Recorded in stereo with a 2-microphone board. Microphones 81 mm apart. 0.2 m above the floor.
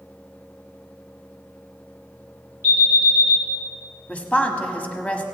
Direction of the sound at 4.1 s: 15° left (ahead or behind).